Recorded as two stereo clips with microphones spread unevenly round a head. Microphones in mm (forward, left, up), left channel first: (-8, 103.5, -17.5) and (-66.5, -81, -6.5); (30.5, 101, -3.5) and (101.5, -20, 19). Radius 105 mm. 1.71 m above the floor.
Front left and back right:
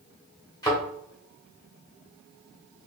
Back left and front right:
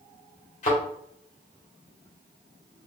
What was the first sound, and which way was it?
A thud, 135° left.